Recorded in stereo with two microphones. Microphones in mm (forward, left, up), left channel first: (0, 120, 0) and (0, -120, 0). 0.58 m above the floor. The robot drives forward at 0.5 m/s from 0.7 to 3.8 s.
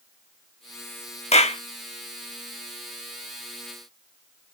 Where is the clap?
25° left (ahead or behind), 0.9 m.